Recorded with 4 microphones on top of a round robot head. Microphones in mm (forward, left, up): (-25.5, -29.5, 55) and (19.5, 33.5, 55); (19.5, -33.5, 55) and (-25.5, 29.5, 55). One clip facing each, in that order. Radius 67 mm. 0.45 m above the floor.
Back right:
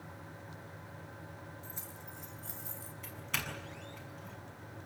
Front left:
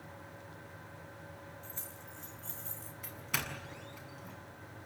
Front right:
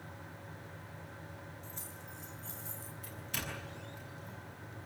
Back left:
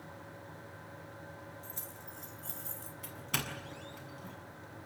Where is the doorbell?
135° left, 7 m.